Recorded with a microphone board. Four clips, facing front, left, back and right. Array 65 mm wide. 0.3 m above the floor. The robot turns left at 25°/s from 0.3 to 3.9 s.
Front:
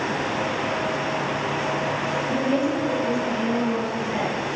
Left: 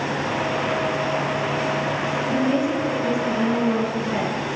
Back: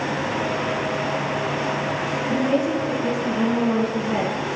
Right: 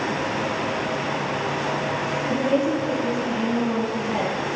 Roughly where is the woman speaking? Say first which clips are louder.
Even, back 3 dB; behind.